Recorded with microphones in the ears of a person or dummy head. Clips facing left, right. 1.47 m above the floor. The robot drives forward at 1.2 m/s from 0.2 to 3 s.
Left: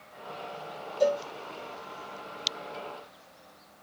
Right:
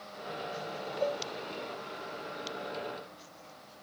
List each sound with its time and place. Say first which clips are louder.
1.0 s a cowbell: left 8 dB; 75° left (ahead or behind); by 1.2 s 80° left